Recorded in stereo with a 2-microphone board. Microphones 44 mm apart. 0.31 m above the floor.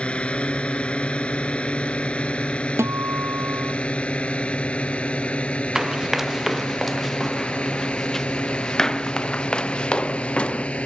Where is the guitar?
85° right.